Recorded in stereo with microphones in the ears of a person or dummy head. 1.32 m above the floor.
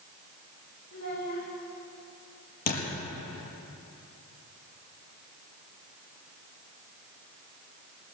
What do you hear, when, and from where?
0.9 s a child speaking: 55° left (ahead or behind), 4.5 m
2.7 s a thud: 45° left (ahead or behind), 5 m